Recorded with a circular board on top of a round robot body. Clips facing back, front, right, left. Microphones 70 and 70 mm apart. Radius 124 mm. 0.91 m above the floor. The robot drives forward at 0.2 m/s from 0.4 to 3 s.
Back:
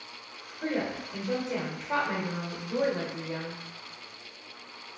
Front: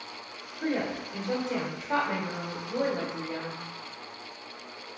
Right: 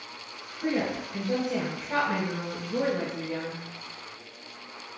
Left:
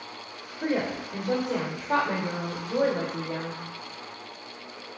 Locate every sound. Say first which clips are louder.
0.6 s a woman speaking: front 1 dB, even; 80° left, 0.8 m; by 3.6 s 110° left, 0.9 m